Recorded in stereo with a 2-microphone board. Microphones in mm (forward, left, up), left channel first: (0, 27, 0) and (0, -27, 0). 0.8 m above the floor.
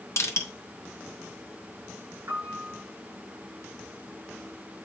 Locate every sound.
0.2 s crushing: 65° left (ahead or behind), 1.4 m
2.3 s a piano: 45° right (ahead or behind), 5 m